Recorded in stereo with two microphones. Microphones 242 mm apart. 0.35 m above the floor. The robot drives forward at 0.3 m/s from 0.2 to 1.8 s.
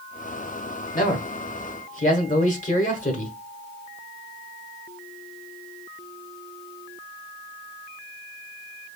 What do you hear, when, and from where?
0.9 s a man speaking: 35° left (ahead or behind), 1.0 m; by 3.3 s 30° left (ahead or behind), 1.1 m